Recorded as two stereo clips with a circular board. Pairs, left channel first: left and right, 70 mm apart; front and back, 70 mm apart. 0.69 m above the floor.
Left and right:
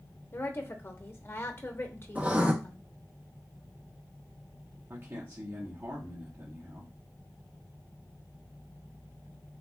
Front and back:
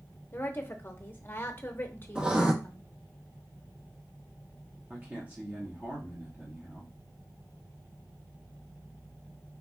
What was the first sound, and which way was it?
A woman speaking, 50° left.